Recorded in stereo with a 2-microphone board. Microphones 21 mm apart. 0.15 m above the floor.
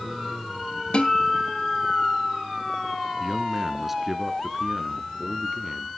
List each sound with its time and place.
0.9 s a guitar: 45° left (ahead or behind), 1.8 m
3.2 s a man speaking: 10° right (ahead or behind), 1.3 m